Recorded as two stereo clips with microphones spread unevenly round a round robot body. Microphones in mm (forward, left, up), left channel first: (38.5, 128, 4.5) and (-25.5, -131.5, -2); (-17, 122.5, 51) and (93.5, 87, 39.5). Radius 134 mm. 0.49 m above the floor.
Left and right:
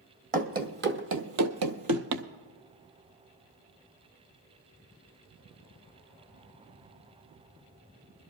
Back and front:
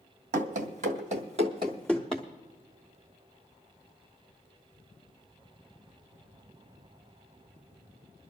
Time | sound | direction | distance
0.3 | running footsteps | 45° right | 1.2 m